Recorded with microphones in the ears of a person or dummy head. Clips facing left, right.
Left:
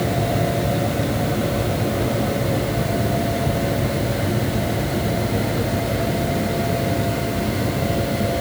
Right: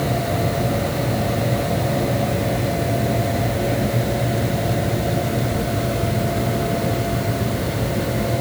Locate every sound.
Only background noise.